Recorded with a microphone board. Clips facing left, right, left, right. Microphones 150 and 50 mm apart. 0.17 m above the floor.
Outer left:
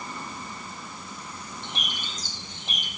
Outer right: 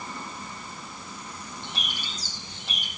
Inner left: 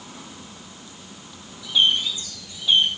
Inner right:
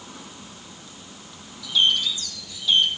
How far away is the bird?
About 3.5 m.